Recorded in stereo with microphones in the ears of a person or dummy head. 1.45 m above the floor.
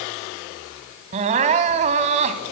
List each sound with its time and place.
1.1 s crying: 35° right (ahead or behind), 1.7 m